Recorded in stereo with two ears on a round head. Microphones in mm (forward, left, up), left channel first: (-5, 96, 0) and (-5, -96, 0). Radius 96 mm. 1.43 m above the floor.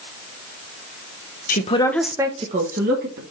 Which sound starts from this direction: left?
A man speaking, at 1.5 s.